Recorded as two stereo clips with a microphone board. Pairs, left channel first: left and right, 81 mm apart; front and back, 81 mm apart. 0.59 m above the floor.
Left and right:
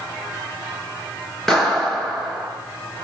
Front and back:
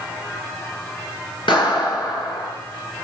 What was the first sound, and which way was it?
A clap, 5° left.